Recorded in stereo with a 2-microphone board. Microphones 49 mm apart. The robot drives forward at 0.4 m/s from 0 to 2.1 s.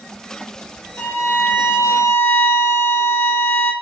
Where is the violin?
55° left (ahead or behind), 2 m; by 3.7 s 65° left (ahead or behind), 1.9 m.